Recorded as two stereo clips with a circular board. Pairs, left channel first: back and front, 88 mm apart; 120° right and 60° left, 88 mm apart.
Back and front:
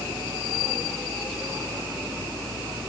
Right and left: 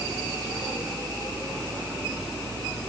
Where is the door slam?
No door slam in this recording.